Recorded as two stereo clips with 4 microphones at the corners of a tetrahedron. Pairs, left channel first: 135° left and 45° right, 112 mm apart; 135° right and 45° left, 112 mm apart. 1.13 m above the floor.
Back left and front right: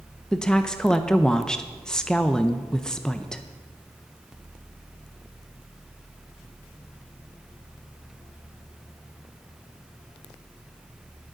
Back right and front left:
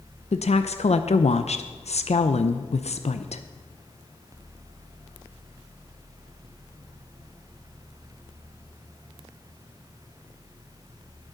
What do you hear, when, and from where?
0.3 s a woman speaking: 140° right, 0.5 m